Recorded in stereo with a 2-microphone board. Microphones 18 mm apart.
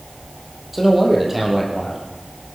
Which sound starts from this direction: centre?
A man speaking, at 0.7 s.